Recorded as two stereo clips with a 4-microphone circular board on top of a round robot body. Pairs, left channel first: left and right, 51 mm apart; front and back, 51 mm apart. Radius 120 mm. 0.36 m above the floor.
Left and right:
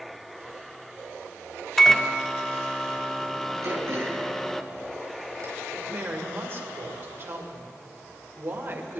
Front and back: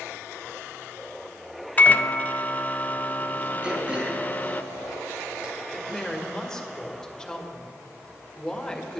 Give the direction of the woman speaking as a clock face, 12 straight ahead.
2 o'clock.